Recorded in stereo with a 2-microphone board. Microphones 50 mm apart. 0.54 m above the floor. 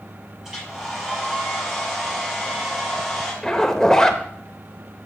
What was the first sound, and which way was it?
A hair dryer, 5° right (ahead or behind).